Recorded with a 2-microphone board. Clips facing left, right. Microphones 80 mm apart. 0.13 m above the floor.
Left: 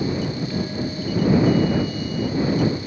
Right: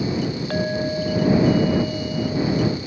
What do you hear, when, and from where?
0.5 s a clink: 60° right (ahead or behind)